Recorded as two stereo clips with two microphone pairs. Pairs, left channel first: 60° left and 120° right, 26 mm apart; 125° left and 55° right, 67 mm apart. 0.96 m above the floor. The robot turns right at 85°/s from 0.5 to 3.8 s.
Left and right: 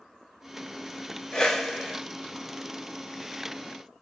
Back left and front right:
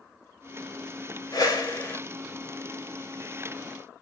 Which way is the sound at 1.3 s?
125° left.